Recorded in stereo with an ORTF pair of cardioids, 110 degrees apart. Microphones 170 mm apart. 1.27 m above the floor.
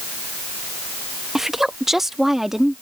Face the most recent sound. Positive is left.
turn(degrees=0)